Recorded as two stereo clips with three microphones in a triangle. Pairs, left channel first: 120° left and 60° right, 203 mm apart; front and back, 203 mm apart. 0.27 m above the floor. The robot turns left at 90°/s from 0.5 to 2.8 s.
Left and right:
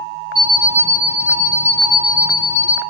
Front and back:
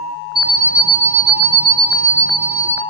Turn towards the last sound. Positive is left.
turn(degrees=-115)